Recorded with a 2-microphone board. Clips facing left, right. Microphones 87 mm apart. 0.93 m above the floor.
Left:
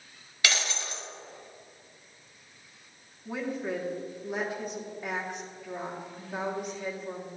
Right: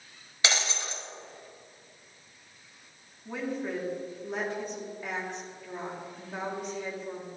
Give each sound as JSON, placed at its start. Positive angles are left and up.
{"t": 0.4, "sound": "breaking glass", "side_deg": -25, "distance_m": 0.9}
{"t": 3.2, "sound": "a woman speaking", "side_deg": 5, "distance_m": 1.6}